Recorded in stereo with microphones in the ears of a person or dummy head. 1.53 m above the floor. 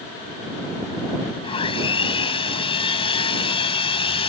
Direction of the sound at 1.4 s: 30° left (ahead or behind).